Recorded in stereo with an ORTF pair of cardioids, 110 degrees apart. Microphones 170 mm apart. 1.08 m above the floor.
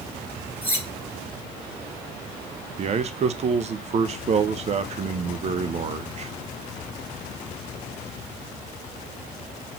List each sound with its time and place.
0.6 s cutlery clinking: 15° right, 2 m
2.8 s a man speaking: 40° right, 0.6 m